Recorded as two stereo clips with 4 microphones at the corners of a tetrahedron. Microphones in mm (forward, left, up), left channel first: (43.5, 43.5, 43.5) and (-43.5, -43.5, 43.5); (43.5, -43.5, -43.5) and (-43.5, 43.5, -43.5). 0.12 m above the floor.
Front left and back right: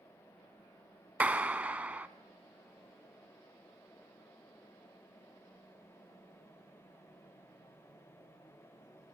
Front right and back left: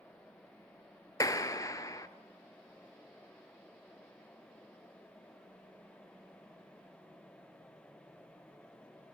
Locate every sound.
1.2 s a clap: 70° right, 0.9 m